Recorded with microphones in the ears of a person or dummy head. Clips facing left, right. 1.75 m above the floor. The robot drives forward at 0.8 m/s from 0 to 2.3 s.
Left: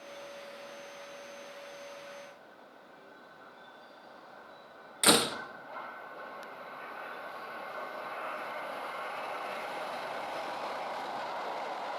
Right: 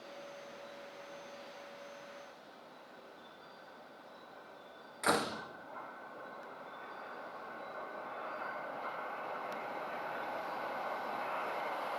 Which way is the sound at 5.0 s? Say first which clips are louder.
Left 6 dB; 45° left (ahead or behind).